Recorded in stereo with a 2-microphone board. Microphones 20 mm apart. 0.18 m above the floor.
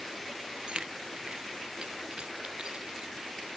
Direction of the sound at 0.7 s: 50° right (ahead or behind).